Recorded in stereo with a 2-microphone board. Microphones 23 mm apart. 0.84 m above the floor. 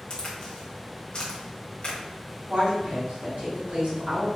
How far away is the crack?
About 1.2 m.